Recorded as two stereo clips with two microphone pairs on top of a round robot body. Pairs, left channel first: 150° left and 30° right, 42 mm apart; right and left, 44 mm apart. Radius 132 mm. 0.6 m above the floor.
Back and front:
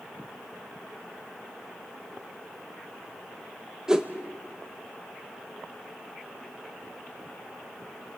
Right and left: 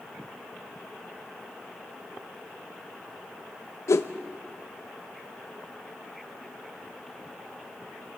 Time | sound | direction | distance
3.9 | a whoosh | 105° right | 0.9 m